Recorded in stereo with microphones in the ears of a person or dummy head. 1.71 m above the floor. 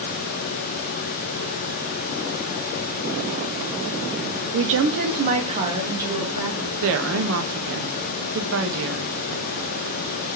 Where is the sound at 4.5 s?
60° right (ahead or behind), 0.8 m; by 6.7 s 15° right (ahead or behind), 3 m.